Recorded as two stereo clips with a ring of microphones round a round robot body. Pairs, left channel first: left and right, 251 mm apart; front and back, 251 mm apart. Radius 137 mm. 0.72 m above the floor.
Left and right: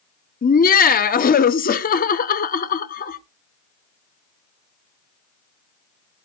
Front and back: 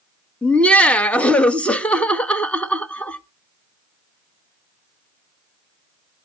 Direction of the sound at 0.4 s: 80° left.